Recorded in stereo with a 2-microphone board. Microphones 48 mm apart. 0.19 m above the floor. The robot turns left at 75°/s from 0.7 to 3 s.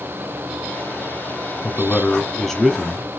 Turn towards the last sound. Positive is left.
turn(degrees=-20)